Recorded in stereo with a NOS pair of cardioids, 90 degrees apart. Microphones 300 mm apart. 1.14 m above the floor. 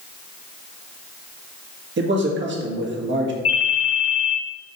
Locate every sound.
2.0 s a man speaking: 40° right, 1.8 m
3.5 s a ringtone: 50° left, 1.5 m